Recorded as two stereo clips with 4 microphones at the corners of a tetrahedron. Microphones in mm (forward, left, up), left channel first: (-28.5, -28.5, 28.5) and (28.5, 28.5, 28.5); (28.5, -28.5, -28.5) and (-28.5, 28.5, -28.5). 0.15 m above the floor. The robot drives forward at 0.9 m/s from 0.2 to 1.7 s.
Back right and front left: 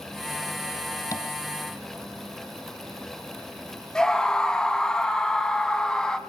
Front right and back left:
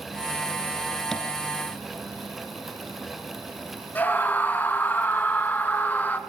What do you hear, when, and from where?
1.1 s tapping: 125° right, 2 m; by 1.3 s 130° right, 2.5 m
4.0 s a scream: 65° right, 1.2 m